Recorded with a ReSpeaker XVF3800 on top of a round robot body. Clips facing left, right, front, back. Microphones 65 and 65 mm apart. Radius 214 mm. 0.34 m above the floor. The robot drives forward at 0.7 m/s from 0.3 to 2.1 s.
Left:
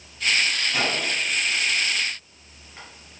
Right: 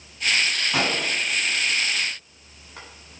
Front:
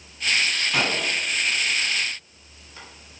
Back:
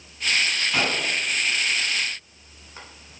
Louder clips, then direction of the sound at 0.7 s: Right 1 dB, even; 90° right.